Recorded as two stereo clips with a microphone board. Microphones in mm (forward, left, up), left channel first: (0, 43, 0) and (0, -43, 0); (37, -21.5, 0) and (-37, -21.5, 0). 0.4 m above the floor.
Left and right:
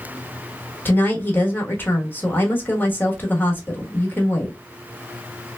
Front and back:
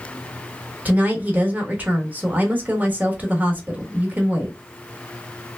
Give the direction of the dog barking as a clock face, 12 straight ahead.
No dog barking in this recording.